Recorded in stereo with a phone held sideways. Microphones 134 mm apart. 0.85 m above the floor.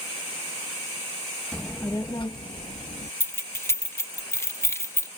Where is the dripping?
No dripping in this recording.